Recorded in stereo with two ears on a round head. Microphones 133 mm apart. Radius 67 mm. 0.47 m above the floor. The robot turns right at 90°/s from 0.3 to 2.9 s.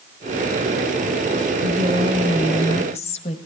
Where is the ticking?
I don't hear ticking.